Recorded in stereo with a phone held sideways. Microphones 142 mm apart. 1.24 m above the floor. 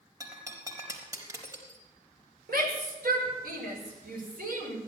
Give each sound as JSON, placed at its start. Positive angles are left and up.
{"t": 0.2, "sound": "breaking glass", "side_deg": -25, "distance_m": 4.5}
{"t": 2.5, "sound": "a shout", "side_deg": -85, "distance_m": 7.0}